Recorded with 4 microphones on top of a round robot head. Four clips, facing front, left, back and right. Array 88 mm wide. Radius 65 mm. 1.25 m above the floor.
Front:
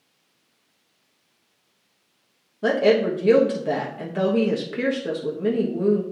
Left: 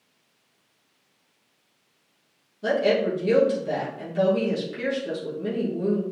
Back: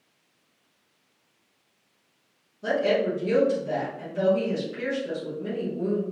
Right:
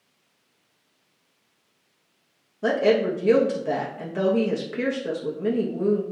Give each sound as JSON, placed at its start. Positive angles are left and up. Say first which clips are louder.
{"t": 2.6, "sound": "a woman speaking", "louder": "right 2 dB, front 5 dB", "azimuth_deg": -35, "distance_m": 1.5}